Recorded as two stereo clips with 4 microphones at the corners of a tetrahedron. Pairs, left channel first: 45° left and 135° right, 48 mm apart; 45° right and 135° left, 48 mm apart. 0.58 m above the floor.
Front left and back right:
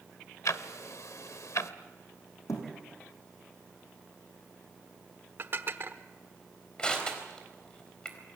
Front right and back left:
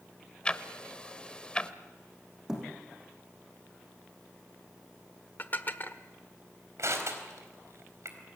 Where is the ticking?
25° left, 1.0 m.